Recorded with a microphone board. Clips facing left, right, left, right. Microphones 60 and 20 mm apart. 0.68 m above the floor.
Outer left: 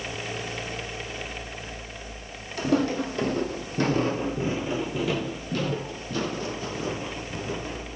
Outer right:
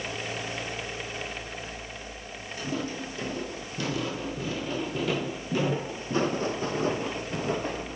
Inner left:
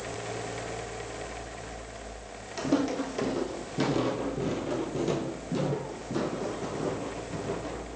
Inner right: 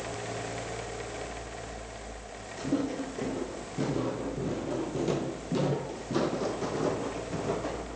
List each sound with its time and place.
2.6 s footsteps: 65° left (ahead or behind), 1.5 m; by 8.0 s 50° right (ahead or behind), 2 m